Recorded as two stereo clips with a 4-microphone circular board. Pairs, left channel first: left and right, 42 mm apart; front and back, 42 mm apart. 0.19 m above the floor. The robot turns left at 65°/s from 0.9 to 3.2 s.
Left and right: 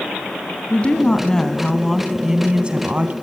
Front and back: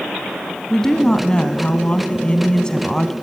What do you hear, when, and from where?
0.7 s a woman speaking: 65° left, 1.7 m; by 3.1 s 80° right, 1.7 m